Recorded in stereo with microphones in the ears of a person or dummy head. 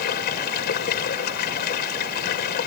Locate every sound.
0.0 s running water: 55° left (ahead or behind)